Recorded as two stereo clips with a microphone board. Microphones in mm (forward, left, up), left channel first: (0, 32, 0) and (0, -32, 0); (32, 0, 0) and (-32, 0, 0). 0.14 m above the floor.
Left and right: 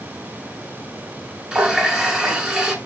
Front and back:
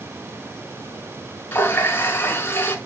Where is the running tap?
25° right, 0.9 m.